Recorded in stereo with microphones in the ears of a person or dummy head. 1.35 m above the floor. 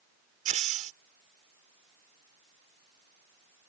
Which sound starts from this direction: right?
Breaking glass, at 0.5 s.